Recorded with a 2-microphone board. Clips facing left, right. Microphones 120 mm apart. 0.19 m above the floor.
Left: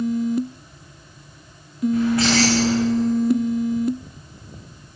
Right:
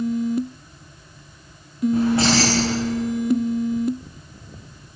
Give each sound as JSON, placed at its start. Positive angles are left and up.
{"t": 1.9, "sound": "keys jangling", "side_deg": -30, "distance_m": 10.0}